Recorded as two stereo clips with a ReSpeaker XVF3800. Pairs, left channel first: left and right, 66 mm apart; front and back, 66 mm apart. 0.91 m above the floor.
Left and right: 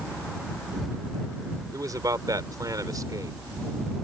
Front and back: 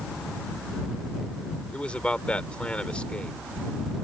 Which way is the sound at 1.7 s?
70° right.